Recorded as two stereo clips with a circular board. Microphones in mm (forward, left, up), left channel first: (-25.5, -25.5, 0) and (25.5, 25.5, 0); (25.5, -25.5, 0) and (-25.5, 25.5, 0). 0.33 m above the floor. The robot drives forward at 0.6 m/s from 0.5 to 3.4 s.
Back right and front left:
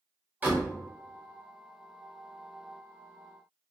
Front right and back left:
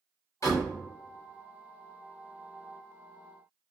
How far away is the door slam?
About 1.6 m.